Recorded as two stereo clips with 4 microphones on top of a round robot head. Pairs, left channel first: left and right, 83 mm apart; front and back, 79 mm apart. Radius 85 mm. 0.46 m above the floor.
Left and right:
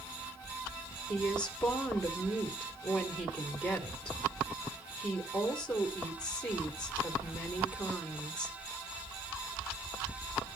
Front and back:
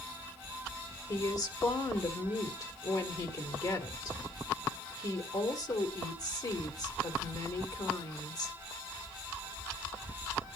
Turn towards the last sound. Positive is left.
turn(degrees=15)